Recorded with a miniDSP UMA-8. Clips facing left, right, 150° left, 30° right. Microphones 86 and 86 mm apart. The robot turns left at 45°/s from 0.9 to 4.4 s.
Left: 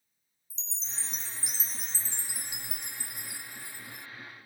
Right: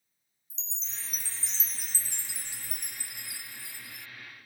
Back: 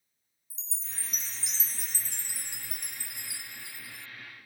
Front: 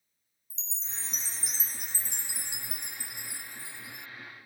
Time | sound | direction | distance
0.5 | a chime | 40° left | ?